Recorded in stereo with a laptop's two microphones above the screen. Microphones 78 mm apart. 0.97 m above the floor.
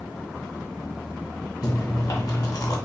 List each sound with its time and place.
1.6 s chewing: 55° left (ahead or behind), 1.4 m